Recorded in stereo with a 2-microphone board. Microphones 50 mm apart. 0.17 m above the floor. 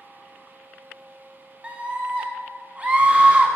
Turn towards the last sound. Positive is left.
turn(degrees=-25)  # may be behind; listen again after turning